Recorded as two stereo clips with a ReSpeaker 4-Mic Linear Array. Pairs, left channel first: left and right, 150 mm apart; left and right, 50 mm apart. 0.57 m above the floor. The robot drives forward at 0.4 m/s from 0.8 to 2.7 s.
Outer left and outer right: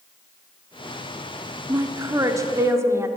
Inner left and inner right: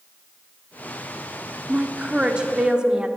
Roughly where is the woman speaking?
Right.